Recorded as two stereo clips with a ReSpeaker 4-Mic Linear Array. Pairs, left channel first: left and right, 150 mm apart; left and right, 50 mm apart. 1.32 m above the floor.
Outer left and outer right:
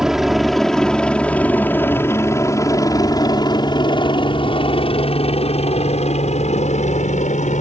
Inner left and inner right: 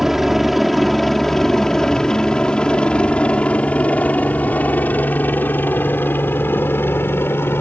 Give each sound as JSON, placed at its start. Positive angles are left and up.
{"t": 0.0, "sound": "a helicopter", "side_deg": -5}